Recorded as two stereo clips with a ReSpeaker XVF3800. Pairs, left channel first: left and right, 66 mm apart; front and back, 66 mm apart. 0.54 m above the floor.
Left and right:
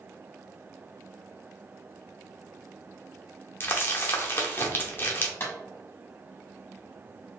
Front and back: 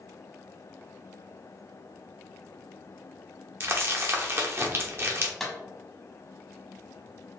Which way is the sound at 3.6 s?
140° left.